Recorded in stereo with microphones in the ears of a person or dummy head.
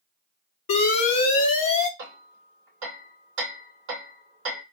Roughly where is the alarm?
Left.